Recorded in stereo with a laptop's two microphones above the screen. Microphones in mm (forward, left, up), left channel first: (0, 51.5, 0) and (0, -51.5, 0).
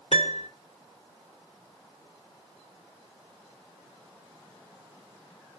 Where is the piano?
85° left, 1.1 m.